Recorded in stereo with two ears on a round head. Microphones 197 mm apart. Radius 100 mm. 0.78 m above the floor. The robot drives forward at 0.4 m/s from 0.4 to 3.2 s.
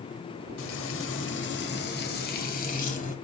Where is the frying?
70° left (ahead or behind), 1.0 m; by 3.1 s 35° left (ahead or behind), 1.6 m.